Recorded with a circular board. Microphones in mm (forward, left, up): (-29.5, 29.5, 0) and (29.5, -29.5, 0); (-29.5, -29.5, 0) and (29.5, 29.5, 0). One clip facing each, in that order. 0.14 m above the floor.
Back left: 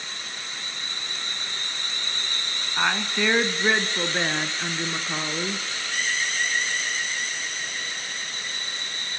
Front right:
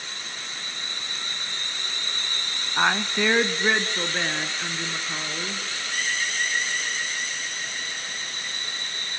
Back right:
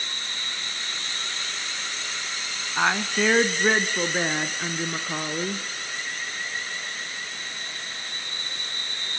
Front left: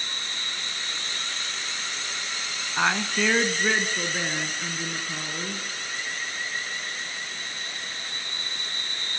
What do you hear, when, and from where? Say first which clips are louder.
2.8 s a woman speaking: front right 2 dB, back right 1 dB; 65° right, 1.1 m; by 5.7 s 160° right, 2 m